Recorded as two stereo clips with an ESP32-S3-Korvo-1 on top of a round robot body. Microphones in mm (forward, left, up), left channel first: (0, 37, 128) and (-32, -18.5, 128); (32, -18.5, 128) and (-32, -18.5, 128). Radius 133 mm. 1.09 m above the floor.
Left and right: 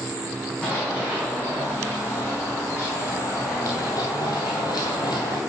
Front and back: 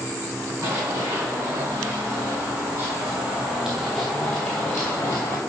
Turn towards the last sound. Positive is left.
turn(degrees=50)